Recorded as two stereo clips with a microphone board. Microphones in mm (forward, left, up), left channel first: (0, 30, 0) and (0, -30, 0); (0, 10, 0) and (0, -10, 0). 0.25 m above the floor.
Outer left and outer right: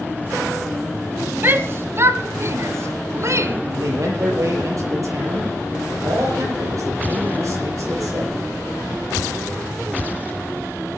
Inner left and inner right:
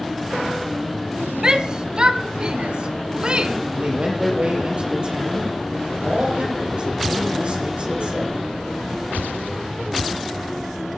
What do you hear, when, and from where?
1.4 s a shout: 35° right (ahead or behind), 1.1 m; by 3.6 s 50° right (ahead or behind), 2 m
3.7 s a man speaking: 60° right (ahead or behind), 8.5 m